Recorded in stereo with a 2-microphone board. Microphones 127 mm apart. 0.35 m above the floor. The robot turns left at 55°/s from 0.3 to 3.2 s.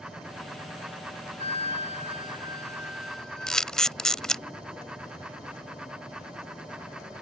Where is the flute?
85° right; by 3.7 s 175° left.